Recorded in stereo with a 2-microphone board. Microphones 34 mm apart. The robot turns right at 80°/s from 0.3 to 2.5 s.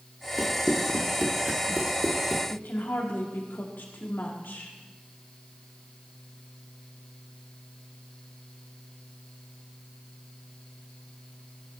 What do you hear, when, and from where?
0.4 s running footsteps: 10° right (ahead or behind), 2.5 m; by 2.4 s 35° right (ahead or behind), 1.5 m
2.5 s a woman speaking: 85° left, 2.0 m